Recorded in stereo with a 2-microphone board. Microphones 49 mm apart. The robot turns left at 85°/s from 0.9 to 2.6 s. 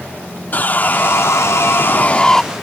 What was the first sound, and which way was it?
Sawing, 135° left.